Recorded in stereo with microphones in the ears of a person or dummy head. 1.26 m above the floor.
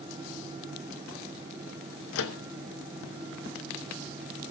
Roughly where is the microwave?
Left.